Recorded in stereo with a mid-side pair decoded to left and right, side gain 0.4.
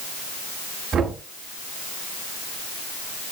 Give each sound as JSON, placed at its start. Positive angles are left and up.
{"t": 0.9, "sound": "knocking", "azimuth_deg": -50, "distance_m": 9.0}